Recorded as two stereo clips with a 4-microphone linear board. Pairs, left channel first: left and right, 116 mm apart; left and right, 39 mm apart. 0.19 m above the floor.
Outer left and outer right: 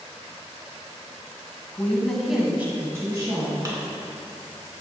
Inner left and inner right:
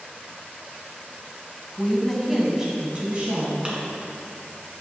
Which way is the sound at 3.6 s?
30° right (ahead or behind).